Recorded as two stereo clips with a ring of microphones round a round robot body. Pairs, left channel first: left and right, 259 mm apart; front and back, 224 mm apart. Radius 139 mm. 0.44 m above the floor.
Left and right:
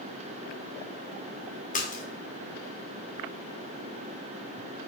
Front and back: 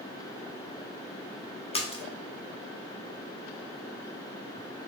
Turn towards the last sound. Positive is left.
turn(degrees=50)